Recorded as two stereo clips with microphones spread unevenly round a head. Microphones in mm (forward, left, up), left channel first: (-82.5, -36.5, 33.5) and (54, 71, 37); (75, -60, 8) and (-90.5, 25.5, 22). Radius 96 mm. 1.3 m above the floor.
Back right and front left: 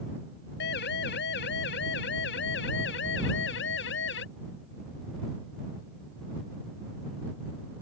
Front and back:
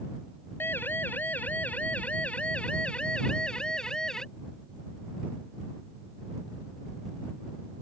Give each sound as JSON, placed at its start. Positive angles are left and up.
{"t": 0.6, "sound": "a siren", "azimuth_deg": -105}